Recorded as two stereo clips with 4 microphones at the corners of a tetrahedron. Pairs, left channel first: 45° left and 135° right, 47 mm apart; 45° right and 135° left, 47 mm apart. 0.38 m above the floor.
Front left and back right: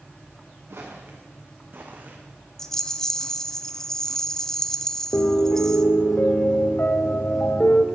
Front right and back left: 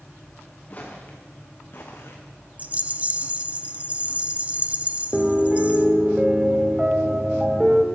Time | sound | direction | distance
0.7 | footsteps | 100° right | 2.5 m
2.6 | a rattle | 115° left | 0.6 m
5.1 | a piano | 70° left | 0.8 m